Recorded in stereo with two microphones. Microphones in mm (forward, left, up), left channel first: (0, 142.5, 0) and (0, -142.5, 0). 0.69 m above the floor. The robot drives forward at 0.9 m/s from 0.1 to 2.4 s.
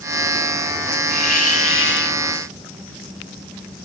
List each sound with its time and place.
1.1 s a hiss: 70° left (ahead or behind), 1.0 m; by 2.2 s 35° left (ahead or behind), 1.6 m